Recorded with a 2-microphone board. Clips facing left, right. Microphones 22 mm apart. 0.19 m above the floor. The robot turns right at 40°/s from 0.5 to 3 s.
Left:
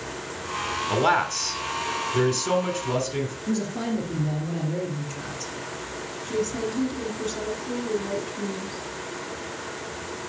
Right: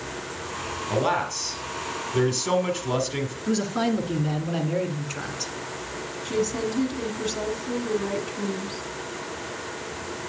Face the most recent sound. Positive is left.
turn(degrees=-30)  # may be behind; listen again after turning